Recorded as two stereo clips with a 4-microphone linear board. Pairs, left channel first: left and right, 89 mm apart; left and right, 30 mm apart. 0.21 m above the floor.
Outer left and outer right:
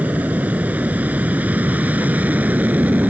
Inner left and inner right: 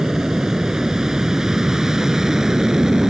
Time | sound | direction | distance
0.0 | an aircraft | 20° right (ahead or behind) | ?